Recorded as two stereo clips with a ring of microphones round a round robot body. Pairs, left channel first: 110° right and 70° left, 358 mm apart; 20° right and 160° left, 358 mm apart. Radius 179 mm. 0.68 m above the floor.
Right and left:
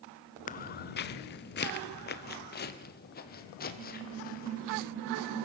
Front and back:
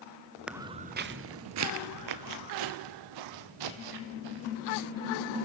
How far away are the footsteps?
About 0.6 m.